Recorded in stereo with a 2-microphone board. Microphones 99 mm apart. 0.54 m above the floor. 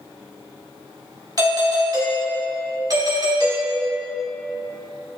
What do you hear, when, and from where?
1.4 s a doorbell: 40° right (ahead or behind), 1.9 m